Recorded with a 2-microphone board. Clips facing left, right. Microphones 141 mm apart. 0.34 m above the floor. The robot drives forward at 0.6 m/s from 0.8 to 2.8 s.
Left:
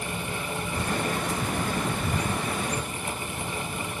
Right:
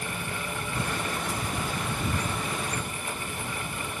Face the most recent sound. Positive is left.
turn(degrees=-10)  # may be behind; listen again after turning